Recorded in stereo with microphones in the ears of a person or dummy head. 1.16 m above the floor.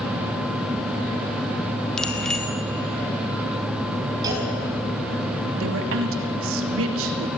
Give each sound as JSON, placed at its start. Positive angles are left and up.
{"t": 2.0, "sound": "a bicycle bell", "side_deg": 5, "distance_m": 2.0}
{"t": 4.2, "sound": "a clunk", "side_deg": -25, "distance_m": 6.5}
{"t": 5.6, "sound": "a woman speaking", "side_deg": -70, "distance_m": 2.5}